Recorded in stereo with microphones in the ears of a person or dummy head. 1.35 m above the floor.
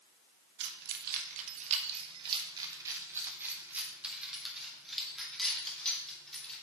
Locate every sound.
0.6 s keys jangling: 65° right (ahead or behind), 1.1 m; by 6.5 s 5° left (ahead or behind), 3 m